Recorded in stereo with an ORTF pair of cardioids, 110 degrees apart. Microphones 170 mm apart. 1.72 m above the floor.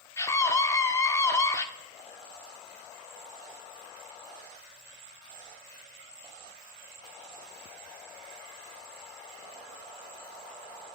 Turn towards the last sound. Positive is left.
turn(degrees=20)